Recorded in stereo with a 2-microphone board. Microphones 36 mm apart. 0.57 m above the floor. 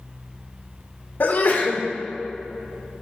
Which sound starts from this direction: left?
A sneeze, at 1.2 s.